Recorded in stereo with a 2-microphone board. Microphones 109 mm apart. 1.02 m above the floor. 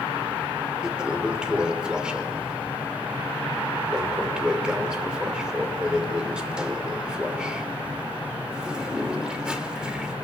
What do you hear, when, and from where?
0.8 s a toilet flushing: 10° right (ahead or behind), 2.5 m